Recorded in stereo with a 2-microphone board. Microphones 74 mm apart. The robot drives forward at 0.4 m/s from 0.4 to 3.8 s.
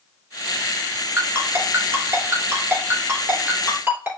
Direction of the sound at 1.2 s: 35° right (ahead or behind).